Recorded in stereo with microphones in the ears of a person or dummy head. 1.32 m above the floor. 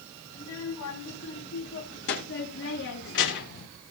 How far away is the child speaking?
About 5 m.